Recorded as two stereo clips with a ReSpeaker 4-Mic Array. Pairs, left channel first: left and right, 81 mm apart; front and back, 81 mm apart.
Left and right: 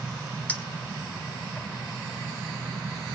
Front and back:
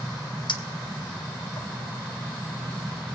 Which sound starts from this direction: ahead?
A clink, at 0.5 s.